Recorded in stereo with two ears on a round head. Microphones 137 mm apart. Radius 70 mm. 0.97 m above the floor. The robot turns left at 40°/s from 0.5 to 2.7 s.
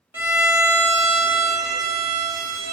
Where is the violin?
15° right, 0.6 m; by 2.7 s 105° right, 0.6 m.